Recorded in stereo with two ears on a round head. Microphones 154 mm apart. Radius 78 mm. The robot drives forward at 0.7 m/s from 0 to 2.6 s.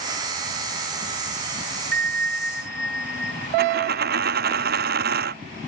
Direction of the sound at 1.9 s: 50° right (ahead or behind).